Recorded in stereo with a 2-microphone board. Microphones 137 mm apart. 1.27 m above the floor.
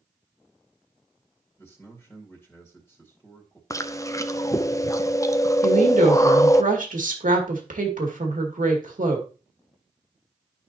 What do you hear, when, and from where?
1.6 s a man speaking: 15° left (ahead or behind), 1.9 m
3.7 s chewing: 20° left (ahead or behind), 0.5 m
5.6 s a woman speaking: 70° right (ahead or behind), 2.5 m